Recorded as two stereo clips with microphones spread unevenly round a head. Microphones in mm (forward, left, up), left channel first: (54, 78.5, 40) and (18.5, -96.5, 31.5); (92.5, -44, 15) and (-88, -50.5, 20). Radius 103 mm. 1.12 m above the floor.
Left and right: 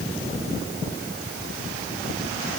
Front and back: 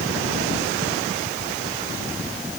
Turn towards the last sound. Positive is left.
No sound to turn to.